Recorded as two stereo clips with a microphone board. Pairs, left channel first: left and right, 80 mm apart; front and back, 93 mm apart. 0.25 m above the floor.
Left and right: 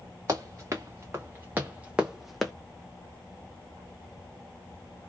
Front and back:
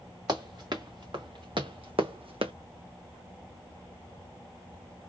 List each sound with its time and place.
0.3 s running footsteps: 140° right, 1.7 m; by 2.5 s 170° left, 0.7 m